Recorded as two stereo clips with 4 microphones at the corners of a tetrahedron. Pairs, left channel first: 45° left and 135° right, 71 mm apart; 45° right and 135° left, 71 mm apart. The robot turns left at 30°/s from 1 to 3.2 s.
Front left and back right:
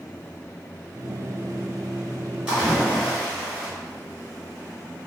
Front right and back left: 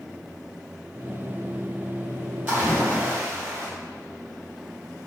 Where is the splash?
165° left, 1.5 m; by 3.7 s 145° left, 1.5 m.